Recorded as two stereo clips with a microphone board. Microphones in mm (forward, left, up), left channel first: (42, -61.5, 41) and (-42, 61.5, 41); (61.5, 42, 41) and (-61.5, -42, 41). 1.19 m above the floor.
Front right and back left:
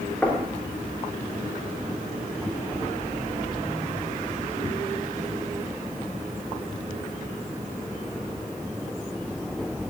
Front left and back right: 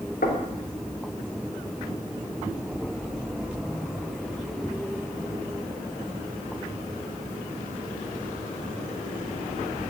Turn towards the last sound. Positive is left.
turn(degrees=25)